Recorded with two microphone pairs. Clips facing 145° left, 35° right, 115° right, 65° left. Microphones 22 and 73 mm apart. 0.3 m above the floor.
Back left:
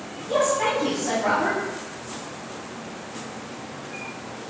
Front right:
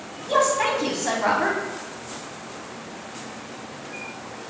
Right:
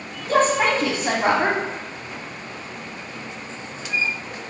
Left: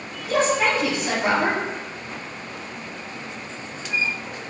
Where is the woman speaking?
75° right, 1.8 m.